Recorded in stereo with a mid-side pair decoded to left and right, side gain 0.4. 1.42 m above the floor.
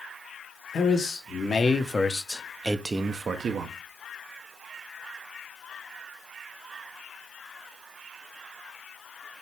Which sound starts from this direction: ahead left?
A man speaking, at 0.7 s.